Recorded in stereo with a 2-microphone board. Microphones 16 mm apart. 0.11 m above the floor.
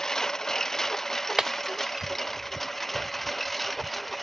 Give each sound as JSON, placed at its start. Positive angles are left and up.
{"t": 0.0, "sound": "a lawn mower", "side_deg": 35}
{"t": 1.4, "sound": "breaking glass", "side_deg": -40}